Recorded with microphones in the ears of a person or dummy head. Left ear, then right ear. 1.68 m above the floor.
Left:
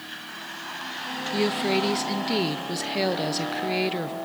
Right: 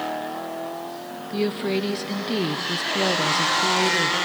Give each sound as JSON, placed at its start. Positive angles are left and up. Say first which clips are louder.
{"t": 1.3, "sound": "a woman speaking", "louder": "even", "side_deg": 10, "distance_m": 0.9}